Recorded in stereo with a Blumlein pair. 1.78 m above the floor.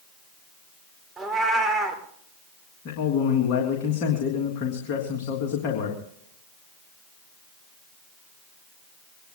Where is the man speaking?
40° left, 3.5 m.